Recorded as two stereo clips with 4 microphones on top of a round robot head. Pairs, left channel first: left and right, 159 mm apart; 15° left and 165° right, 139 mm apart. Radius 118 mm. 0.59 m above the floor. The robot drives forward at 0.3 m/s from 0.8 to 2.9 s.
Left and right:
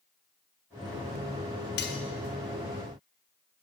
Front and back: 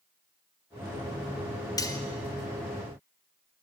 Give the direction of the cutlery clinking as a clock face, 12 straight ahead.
9 o'clock.